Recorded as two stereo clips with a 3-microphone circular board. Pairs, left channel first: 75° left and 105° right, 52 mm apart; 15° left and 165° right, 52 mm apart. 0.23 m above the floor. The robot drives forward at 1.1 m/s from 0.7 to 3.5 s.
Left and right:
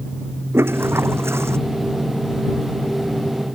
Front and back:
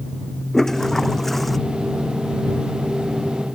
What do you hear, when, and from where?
0.5 s a toilet flushing: 65° right; by 1.6 s 70° right